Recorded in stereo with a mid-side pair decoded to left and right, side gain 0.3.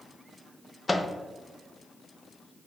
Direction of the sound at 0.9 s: 35° left.